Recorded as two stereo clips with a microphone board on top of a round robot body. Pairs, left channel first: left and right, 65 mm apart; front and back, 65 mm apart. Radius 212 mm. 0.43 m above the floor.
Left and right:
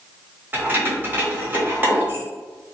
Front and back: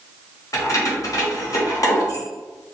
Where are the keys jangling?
30° right, 1.4 m.